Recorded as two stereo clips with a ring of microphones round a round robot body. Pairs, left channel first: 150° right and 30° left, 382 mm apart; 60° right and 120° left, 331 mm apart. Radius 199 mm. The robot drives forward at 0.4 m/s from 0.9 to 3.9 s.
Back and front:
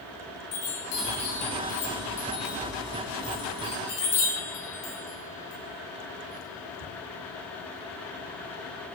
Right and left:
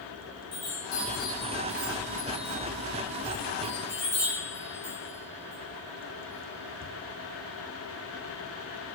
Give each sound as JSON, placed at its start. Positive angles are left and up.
{"t": 0.5, "sound": "a chime", "azimuth_deg": -130, "distance_m": 4.0}